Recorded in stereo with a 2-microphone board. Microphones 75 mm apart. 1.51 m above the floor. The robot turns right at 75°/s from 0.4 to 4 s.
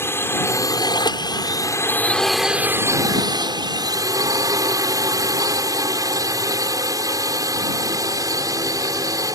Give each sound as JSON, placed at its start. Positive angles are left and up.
{"t": 0.0, "sound": "a drone", "azimuth_deg": 35}